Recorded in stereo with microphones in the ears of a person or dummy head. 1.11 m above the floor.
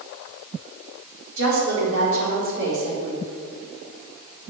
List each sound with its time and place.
1.4 s a woman speaking: 75° right (ahead or behind), 4 m